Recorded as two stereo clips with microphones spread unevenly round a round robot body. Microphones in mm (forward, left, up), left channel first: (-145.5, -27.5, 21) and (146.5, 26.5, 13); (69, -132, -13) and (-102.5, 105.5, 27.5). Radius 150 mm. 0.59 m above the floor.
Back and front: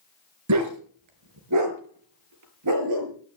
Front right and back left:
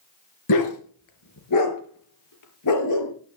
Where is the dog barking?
25° right, 4 m; by 3.1 s 20° right, 6 m.